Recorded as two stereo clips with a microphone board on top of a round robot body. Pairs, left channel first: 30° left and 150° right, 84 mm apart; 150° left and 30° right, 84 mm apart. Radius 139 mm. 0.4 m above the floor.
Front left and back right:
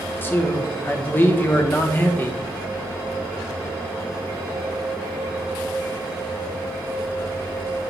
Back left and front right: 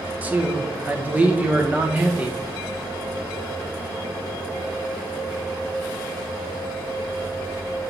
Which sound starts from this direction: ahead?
A man speaking, at 0.2 s.